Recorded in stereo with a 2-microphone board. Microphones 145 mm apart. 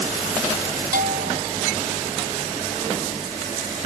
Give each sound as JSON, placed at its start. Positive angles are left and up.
{"t": 0.9, "sound": "a bell", "side_deg": -90}